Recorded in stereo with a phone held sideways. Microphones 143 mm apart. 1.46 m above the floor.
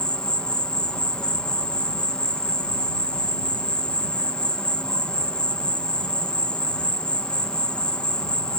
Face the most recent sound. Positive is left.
turn(degrees=5)  # may be behind; listen again after turning